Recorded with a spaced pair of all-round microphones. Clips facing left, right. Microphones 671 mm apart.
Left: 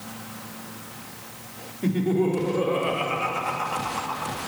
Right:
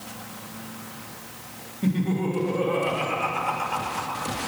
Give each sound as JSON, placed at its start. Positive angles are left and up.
{"t": 1.8, "sound": "laughter", "side_deg": -35, "distance_m": 4.0}